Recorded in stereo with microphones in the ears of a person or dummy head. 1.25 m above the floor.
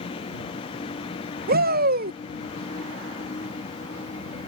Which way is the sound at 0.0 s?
35° left (ahead or behind).